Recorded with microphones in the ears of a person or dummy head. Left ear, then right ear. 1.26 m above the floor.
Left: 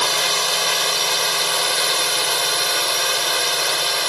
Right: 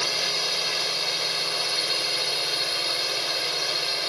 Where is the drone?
40° left (ahead or behind).